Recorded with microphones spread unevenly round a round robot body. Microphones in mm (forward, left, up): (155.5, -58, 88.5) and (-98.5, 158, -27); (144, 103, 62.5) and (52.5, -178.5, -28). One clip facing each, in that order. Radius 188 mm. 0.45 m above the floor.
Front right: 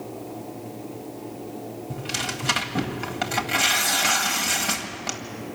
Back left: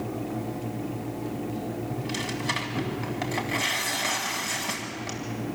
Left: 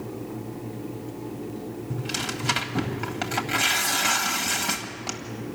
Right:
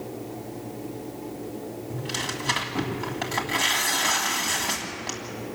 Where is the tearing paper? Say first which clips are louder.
Back left 2 dB, left 1 dB; 20° left, 1.9 m.